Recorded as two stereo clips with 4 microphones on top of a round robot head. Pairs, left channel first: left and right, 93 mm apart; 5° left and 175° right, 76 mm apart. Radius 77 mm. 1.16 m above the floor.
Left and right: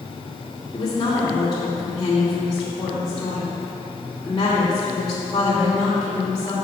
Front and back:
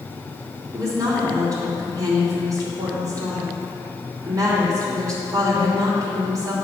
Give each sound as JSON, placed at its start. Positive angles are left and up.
{"t": 0.7, "sound": "a woman speaking", "azimuth_deg": 150, "distance_m": 2.5}